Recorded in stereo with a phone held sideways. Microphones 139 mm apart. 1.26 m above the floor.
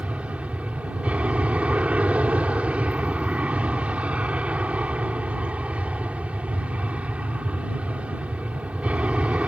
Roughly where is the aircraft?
Centre.